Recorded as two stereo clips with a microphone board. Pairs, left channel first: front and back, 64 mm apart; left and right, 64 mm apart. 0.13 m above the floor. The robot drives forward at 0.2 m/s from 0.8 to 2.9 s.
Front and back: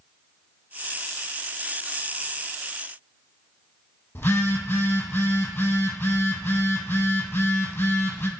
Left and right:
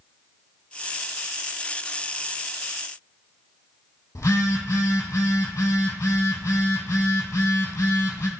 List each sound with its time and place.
4.2 s a phone buzzing: 60° left, 0.7 m